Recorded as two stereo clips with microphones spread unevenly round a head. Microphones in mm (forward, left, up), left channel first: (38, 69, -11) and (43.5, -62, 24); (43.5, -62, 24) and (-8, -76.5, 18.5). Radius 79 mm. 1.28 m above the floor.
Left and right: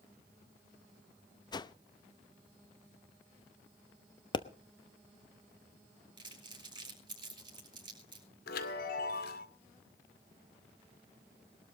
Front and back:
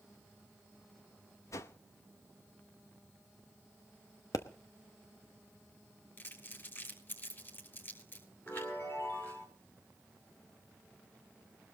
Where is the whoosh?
30° left, 0.8 m.